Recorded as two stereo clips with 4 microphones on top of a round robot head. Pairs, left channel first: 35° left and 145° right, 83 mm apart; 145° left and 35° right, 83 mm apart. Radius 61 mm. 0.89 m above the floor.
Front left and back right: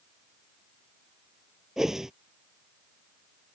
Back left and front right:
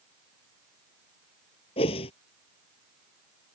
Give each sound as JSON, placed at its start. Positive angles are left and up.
{"t": 1.8, "sound": "a whoosh", "azimuth_deg": 130}